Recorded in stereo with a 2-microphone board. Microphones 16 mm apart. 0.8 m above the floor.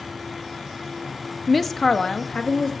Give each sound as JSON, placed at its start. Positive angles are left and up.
{"t": 1.5, "sound": "a woman speaking", "side_deg": 0, "distance_m": 0.6}